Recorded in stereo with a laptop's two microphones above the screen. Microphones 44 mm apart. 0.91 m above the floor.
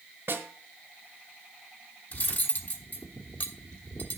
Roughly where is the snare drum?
Right.